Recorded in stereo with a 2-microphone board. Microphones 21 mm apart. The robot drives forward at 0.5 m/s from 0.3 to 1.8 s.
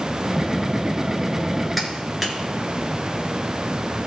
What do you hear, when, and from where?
1.8 s a clap: 5° left (ahead or behind), 2 m